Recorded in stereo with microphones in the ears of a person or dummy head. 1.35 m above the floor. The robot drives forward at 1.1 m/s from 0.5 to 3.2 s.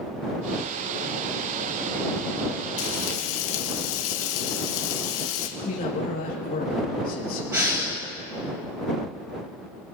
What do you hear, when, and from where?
2.8 s frying: 75° left (ahead or behind), 1.5 m; by 5.5 s 85° left, 1.4 m
5.6 s a man speaking: 50° left (ahead or behind), 1.4 m
7.5 s breathing: 15° right (ahead or behind), 1.7 m